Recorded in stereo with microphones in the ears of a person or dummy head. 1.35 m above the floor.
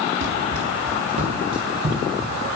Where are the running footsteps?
45° right (ahead or behind), 1.9 m; by 2.4 s 25° right (ahead or behind), 2.5 m.